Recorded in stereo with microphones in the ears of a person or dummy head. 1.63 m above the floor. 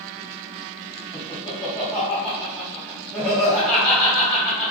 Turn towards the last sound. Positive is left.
turn(degrees=5)  # may be behind; listen again after turning